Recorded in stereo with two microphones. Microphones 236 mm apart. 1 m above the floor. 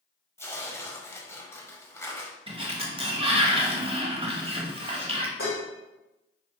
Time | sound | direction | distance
0.4 | tearing paper | 10° left (ahead or behind) | 0.8 m
2.5 | a sliding door | 25° right (ahead or behind) | 0.8 m
5.4 | dishes clattering | 60° left (ahead or behind) | 2.5 m